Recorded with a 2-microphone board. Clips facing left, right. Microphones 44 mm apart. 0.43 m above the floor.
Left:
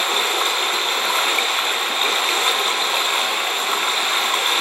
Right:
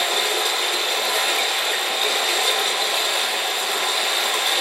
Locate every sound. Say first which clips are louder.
0.0 s running water: left 2 dB; 40° left (ahead or behind), 1.5 m